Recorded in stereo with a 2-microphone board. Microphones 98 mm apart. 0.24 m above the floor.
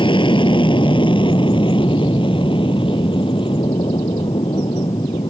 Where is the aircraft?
55° left (ahead or behind); by 5.3 s 60° left (ahead or behind).